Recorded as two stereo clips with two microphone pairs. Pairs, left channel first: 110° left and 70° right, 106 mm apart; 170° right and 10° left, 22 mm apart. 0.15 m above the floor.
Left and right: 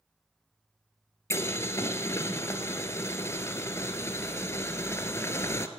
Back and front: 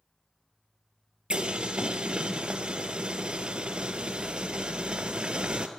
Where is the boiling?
45° left, 0.8 m.